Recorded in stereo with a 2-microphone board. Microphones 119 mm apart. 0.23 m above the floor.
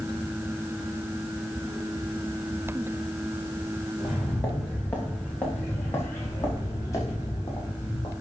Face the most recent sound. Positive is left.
turn(degrees=35)  # may be behind; listen again after turning